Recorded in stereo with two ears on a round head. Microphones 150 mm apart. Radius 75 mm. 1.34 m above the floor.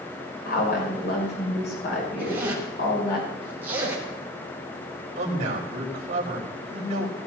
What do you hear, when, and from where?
0.5 s a woman speaking: 70° left (ahead or behind), 6.5 m
2.2 s a zipper: 10° right (ahead or behind), 5 m
5.2 s a man speaking: 45° right (ahead or behind), 4.5 m